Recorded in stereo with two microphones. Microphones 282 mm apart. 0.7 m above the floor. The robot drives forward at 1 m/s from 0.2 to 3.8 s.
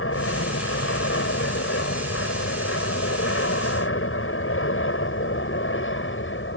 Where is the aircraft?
50° left (ahead or behind); by 6.6 s 45° left (ahead or behind).